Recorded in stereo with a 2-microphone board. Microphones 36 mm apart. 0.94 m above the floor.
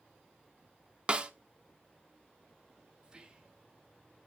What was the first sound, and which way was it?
A snare drum, 30° right (ahead or behind).